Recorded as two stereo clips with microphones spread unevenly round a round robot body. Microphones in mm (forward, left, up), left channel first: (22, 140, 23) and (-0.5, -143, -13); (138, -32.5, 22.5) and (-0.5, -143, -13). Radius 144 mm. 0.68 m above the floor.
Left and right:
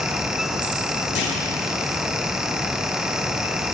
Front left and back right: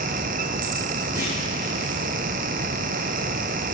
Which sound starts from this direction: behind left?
A clunk, at 1.1 s.